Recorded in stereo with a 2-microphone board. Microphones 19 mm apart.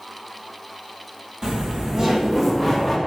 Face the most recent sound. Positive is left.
turn(degrees=0)  # may be behind; listen again after turning